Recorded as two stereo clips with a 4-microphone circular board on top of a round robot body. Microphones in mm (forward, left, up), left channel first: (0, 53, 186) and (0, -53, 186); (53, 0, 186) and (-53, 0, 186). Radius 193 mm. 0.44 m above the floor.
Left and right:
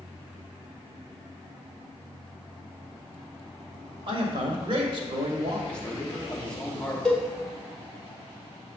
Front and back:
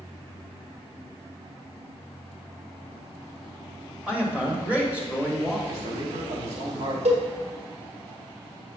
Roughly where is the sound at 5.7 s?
Behind.